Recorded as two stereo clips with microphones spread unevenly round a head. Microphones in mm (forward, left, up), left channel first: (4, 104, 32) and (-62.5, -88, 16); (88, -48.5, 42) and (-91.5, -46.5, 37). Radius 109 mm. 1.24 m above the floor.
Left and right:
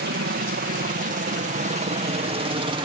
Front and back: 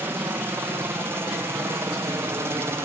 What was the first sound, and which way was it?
A helicopter, 105° right.